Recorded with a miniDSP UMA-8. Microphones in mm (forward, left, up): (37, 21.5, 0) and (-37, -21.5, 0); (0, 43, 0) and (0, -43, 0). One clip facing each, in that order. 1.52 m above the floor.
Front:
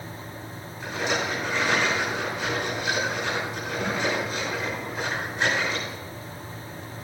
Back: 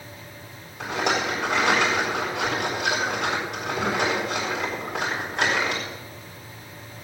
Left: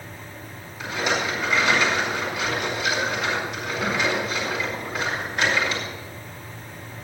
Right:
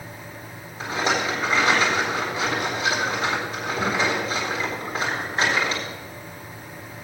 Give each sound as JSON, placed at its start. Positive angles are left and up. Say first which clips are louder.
{"t": 0.8, "sound": "a rattle", "louder": "back 3 dB, right 1 dB", "azimuth_deg": -150, "distance_m": 7.0}